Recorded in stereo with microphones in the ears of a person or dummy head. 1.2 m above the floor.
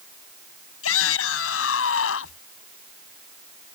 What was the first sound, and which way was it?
A shout, 85° left.